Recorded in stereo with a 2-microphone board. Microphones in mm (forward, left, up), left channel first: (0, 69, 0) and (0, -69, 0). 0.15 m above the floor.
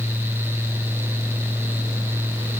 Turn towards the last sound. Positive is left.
No sound to turn to.